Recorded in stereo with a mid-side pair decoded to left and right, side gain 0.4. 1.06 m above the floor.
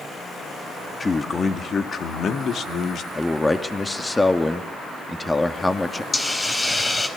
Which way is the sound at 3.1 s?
20° left.